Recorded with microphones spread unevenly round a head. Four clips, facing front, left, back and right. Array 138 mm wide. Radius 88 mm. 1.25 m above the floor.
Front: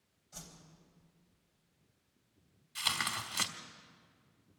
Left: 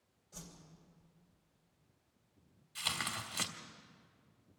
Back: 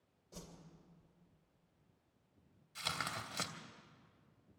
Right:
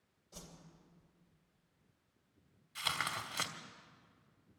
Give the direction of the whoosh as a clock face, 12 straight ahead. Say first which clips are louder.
Even, back 1 dB; 6 o'clock.